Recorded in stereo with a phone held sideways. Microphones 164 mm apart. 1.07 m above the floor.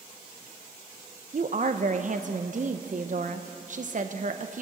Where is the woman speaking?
55° right (ahead or behind), 0.6 m.